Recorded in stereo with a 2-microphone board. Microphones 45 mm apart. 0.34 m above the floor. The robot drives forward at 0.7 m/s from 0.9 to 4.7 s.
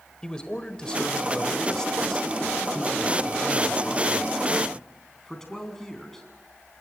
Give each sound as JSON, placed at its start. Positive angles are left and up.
{"t": 0.2, "sound": "a man speaking", "side_deg": 20, "distance_m": 1.7}